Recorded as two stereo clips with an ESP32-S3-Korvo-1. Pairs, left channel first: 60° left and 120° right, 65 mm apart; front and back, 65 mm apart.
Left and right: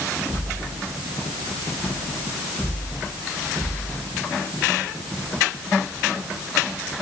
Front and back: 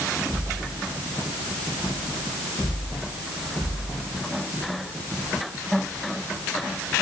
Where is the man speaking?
I don't hear a man speaking.